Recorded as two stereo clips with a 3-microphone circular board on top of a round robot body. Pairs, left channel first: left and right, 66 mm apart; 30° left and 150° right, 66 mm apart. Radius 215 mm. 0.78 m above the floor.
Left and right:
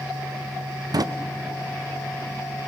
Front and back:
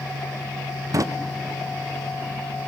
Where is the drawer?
110° right, 0.7 m.